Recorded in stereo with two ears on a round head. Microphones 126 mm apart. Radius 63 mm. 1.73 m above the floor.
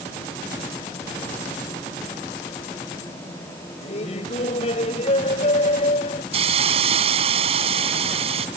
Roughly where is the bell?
No bell in this recording.